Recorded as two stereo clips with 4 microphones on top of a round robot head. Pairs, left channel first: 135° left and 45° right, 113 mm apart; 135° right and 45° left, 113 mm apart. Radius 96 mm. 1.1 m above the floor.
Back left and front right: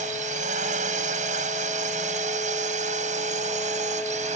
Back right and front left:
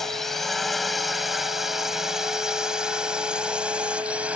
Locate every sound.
0.0 s a drone: 45° right; by 4.4 s 35° right